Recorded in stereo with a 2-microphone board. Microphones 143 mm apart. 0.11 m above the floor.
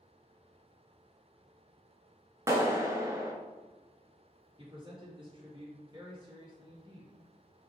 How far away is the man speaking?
About 1.9 m.